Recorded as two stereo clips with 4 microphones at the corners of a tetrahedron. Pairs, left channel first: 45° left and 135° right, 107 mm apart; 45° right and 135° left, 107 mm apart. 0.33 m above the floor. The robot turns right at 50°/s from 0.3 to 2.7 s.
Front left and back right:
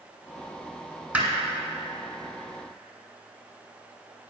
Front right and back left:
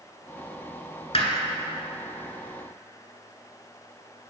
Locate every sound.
1.1 s hammering: 60° right, 1.3 m; by 1.3 s 50° right, 1.3 m